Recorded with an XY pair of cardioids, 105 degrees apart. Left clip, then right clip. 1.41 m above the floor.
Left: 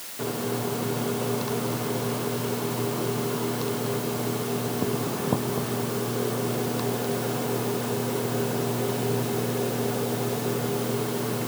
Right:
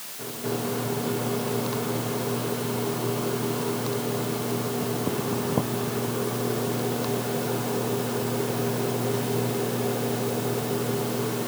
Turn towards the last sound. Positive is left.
No sound to turn to.